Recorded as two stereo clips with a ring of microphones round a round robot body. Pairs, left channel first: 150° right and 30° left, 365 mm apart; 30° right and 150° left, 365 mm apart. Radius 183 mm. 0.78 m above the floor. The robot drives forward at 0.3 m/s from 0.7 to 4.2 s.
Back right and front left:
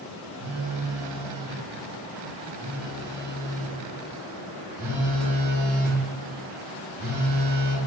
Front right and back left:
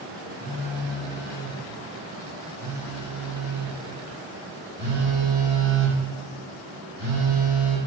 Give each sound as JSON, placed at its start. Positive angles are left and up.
{"t": 0.4, "sound": "a phone buzzing", "azimuth_deg": 45, "distance_m": 1.5}